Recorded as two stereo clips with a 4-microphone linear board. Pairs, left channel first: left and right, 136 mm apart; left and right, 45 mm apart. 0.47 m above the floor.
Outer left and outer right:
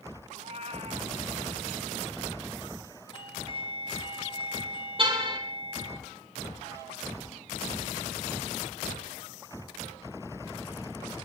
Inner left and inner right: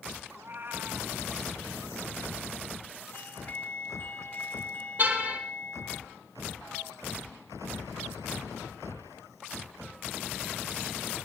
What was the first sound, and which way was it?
A cat meowing, 50° right (ahead or behind).